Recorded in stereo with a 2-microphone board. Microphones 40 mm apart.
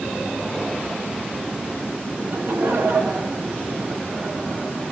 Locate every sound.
2.2 s laughter: 65° right (ahead or behind), 2.5 m